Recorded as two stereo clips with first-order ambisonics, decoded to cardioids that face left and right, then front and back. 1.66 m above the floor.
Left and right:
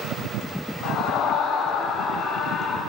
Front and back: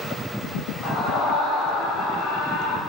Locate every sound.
0.8 s a scream: 50° left, 4.5 m; by 2.8 s 20° left, 6 m